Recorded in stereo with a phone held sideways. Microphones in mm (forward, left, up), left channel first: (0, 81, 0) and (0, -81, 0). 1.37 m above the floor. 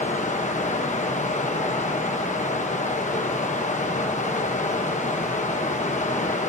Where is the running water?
50° left (ahead or behind), 1.1 m.